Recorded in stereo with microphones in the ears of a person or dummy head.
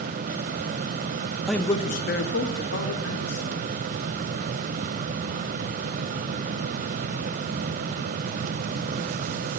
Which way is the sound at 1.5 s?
Centre (ahead or behind).